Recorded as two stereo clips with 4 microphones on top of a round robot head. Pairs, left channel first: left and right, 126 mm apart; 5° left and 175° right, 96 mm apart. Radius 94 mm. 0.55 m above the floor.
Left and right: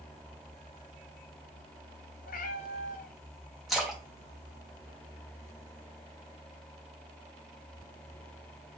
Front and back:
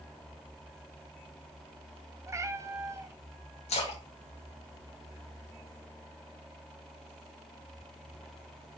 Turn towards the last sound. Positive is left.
turn(degrees=0)